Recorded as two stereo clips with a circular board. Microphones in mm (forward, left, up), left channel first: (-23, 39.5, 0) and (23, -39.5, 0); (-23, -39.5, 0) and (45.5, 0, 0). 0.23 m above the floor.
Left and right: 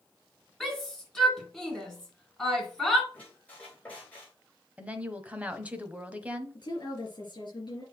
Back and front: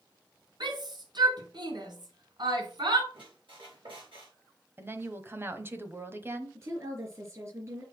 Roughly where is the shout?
Ahead left.